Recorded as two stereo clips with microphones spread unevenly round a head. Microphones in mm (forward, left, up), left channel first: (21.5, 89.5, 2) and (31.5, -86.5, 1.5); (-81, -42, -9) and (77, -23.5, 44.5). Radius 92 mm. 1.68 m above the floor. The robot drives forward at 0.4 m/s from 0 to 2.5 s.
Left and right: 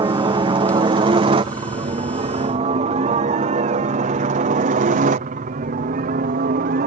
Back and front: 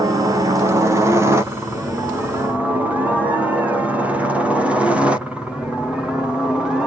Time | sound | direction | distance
0.0 | a helicopter | 80° right | ?